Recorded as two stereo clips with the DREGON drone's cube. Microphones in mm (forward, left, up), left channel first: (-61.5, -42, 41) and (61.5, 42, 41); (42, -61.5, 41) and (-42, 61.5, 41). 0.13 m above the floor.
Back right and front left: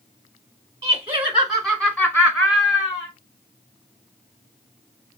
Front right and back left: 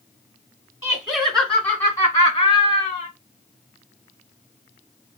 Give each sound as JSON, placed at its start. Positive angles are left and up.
{"t": 0.8, "sound": "laughter", "azimuth_deg": 60, "distance_m": 1.5}